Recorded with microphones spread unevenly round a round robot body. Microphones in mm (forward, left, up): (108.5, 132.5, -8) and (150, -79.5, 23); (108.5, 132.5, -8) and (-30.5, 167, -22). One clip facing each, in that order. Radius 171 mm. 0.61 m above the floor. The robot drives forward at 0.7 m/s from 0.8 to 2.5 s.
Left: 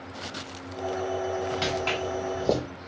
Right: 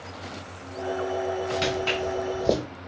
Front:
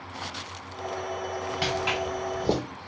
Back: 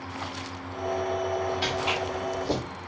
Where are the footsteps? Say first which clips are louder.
Right 2 dB, even; 10° right, 2 m.